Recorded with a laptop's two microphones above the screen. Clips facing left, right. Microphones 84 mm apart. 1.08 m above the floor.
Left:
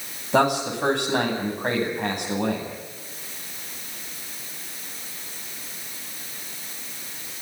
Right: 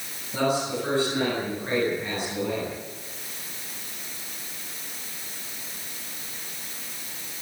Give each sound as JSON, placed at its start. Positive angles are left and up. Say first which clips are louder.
{"t": 0.3, "sound": "a man speaking", "louder": "left 4 dB", "side_deg": 80, "distance_m": 9.5}